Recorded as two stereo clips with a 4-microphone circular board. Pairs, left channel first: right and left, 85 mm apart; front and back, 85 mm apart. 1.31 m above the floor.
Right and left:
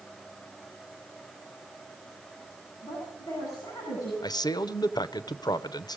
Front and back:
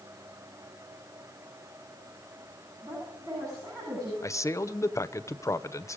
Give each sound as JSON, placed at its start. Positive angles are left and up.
{"t": 2.8, "sound": "a woman speaking", "azimuth_deg": -135, "distance_m": 10.0}
{"t": 4.2, "sound": "a man speaking", "azimuth_deg": -55, "distance_m": 0.6}